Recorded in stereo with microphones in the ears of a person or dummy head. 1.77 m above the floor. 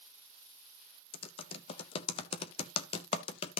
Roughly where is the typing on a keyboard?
Left.